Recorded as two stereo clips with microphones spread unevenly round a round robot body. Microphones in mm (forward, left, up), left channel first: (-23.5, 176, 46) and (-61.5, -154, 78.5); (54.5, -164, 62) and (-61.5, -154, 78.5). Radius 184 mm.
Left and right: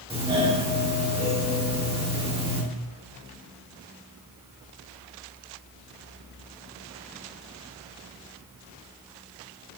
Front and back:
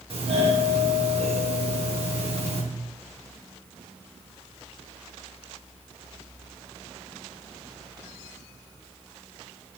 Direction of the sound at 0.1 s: 170° right.